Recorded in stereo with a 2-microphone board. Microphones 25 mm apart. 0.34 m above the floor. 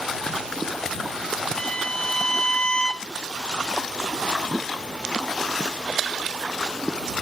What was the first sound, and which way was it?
A violin, 35° left (ahead or behind).